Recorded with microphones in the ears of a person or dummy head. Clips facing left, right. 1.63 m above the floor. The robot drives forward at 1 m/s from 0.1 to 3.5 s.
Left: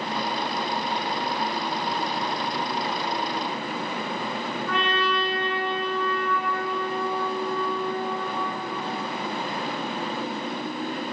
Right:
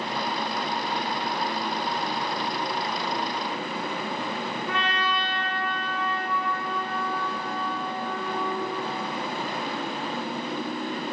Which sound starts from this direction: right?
A trumpet, at 4.7 s.